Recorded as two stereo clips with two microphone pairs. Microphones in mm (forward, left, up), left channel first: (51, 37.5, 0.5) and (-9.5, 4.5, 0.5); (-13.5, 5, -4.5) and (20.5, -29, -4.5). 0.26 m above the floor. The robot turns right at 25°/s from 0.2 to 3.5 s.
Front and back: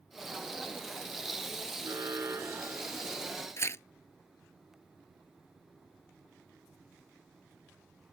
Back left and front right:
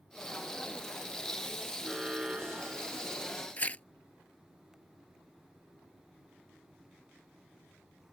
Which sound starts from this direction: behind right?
An alarm, at 1.8 s.